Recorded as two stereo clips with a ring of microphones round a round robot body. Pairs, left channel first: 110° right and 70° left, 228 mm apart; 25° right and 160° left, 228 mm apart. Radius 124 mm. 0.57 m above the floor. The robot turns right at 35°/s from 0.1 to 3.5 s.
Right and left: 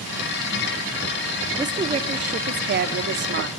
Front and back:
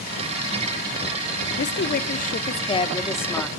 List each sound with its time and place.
1.6 s a woman speaking: straight ahead, 1.5 m; by 3.5 s 65° left, 1.5 m